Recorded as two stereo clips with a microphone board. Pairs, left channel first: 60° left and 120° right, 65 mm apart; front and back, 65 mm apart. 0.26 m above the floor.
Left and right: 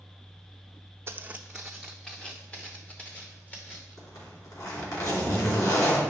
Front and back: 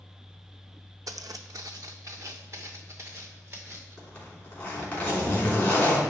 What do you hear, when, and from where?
1.1 s footsteps: 165° right, 0.6 m; by 4.0 s 125° left, 3.5 m
4.0 s a zipper: 60° left, 3 m